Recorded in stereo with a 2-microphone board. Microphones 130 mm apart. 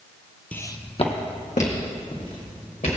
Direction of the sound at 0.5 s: 10° left (ahead or behind).